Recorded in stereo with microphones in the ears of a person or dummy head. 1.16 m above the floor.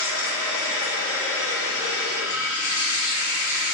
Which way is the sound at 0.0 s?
75° left (ahead or behind).